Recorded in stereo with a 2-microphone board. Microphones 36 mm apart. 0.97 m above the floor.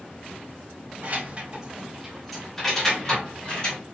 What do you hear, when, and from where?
1.0 s keys jangling: 50° right (ahead or behind), 0.6 m; by 3.8 s 25° left (ahead or behind), 1.5 m